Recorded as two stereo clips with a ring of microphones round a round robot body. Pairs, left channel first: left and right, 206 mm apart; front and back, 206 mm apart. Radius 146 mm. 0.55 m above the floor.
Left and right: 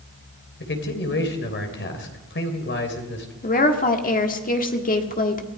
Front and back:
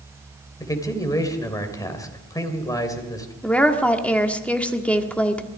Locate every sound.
0.6 s a man speaking: 75° left, 3 m
3.4 s a woman speaking: 80° left, 1.6 m